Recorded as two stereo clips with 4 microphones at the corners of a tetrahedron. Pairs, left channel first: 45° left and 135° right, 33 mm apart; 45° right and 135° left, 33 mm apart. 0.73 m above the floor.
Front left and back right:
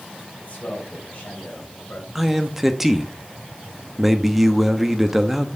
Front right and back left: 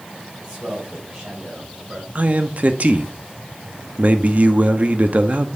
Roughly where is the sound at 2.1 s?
Behind left.